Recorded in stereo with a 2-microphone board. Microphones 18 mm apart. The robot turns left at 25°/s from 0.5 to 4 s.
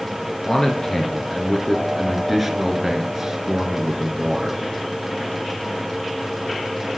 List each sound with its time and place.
0.5 s a man speaking: 45° left, 2 m; by 4.6 s 45° right, 2 m